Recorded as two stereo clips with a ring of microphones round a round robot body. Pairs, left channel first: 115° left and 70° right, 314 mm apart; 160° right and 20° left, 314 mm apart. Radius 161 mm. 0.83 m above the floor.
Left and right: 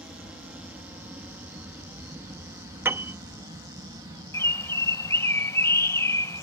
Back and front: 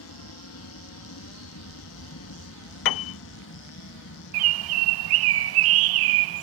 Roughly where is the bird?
Ahead left.